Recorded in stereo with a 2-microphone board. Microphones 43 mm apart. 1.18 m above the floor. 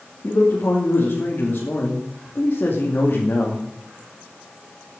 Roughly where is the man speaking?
Left.